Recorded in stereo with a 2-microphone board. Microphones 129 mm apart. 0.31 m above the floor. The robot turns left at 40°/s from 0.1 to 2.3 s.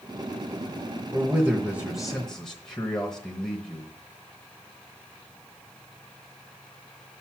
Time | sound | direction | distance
1.1 | a man speaking | 140° right | 1.0 m